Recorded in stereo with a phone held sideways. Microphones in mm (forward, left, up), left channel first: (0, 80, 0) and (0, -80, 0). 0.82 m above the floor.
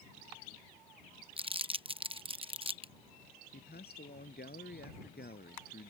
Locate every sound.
1.4 s crumpling: 35° right (ahead or behind)
3.5 s a man speaking: 80° left